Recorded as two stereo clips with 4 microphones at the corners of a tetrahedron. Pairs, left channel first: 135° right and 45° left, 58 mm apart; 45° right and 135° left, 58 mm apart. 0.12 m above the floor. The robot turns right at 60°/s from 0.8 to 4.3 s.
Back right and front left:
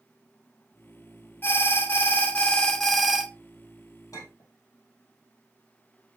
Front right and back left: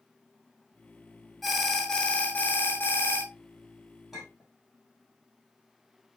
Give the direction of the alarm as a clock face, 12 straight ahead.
5 o'clock.